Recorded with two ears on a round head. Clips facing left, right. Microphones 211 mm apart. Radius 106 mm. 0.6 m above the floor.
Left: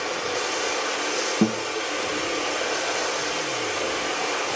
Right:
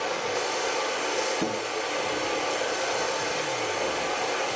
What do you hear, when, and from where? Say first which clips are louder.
0.0 s running water: left 1 dB; 20° left (ahead or behind), 2.5 m
1.4 s a guitar: left 6 dB; 70° left (ahead or behind), 3.5 m